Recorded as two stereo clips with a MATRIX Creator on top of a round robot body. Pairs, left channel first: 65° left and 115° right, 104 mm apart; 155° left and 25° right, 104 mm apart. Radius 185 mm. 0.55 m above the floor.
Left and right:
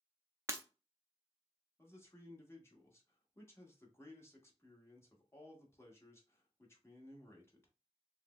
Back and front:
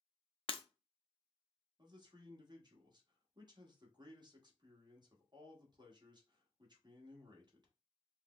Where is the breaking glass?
175° right, 0.7 m.